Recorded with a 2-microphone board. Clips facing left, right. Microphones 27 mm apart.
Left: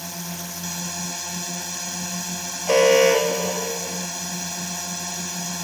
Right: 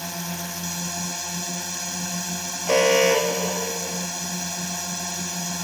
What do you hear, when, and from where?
0.0 s a drone: 20° right (ahead or behind)
2.7 s an alarm: 30° left (ahead or behind)